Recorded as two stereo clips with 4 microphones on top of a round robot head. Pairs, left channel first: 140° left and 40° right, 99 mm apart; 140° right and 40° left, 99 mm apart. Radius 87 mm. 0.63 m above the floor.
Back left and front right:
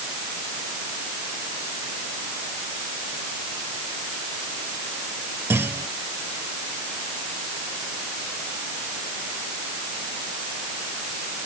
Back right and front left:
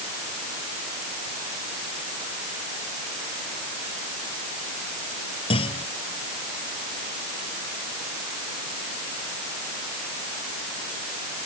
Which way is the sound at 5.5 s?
105° right.